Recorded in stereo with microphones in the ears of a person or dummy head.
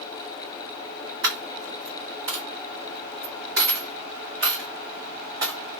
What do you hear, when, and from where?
1.2 s a dropped coin: 15° right (ahead or behind), 1.6 m